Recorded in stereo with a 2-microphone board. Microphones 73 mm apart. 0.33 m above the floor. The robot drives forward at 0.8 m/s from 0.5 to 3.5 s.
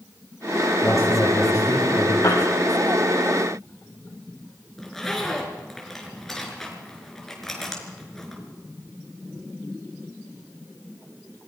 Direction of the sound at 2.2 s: 70° left (ahead or behind).